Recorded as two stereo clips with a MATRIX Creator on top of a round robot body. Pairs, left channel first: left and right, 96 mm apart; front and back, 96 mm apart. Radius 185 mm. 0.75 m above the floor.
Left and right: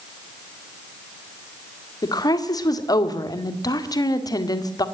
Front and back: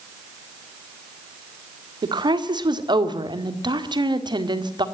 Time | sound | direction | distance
2.0 | a woman speaking | 140° left | 1.9 m